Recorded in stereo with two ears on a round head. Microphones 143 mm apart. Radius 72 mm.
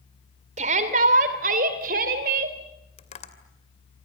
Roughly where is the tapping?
Left.